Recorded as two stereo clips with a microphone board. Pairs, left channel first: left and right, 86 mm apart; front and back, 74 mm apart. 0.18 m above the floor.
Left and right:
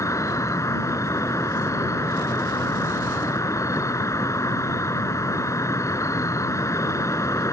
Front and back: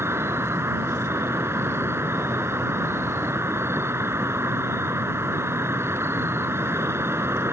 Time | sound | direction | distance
0.0 | an insect | 135° left | ?